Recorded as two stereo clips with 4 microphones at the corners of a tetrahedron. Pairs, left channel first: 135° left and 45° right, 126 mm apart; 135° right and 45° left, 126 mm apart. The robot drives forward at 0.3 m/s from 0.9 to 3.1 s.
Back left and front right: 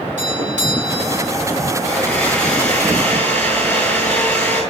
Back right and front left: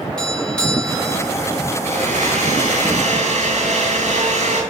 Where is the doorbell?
50° right, 4.5 m.